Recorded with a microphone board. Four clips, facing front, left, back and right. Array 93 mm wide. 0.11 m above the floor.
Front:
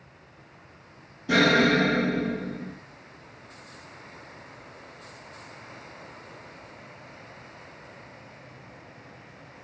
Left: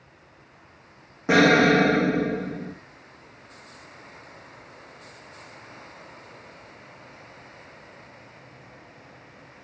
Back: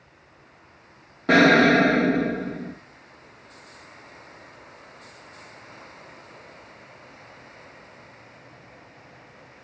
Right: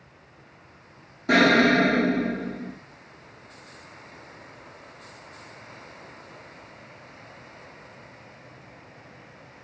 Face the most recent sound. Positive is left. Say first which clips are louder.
# left 1 dB, back 5 dB
turn(degrees=155)